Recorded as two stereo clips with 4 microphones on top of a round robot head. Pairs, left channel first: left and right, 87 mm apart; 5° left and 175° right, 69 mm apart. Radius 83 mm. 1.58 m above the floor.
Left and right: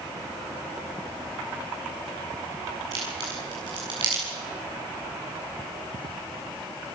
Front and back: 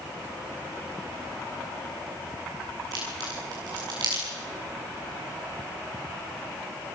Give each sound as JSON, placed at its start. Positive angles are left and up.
{"t": 2.9, "sound": "a crack", "azimuth_deg": -135, "distance_m": 7.5}